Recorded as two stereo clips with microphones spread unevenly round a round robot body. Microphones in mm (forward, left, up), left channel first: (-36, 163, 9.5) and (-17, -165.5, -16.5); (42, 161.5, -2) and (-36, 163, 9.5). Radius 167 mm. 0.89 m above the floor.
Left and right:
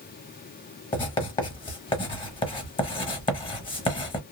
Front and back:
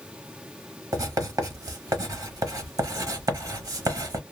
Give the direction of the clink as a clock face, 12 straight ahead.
No clink in this recording.